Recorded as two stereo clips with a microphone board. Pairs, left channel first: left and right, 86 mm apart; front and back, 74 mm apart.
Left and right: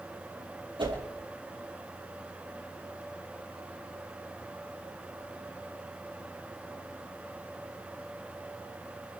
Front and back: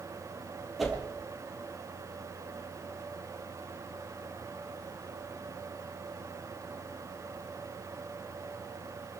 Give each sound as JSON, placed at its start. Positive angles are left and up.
{"t": 0.8, "sound": "a whoosh", "azimuth_deg": -90, "distance_m": 4.0}